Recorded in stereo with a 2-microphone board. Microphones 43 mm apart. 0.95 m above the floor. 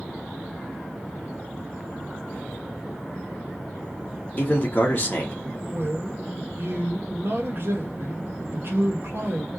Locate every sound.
4.4 s a man speaking: 40° left (ahead or behind), 1.4 m
5.7 s a man speaking: 55° right (ahead or behind), 1.3 m